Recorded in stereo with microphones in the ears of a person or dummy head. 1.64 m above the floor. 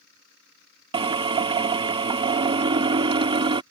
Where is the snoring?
I don't hear snoring.